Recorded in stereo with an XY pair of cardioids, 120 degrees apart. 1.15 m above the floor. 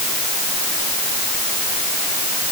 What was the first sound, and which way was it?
Only background noise.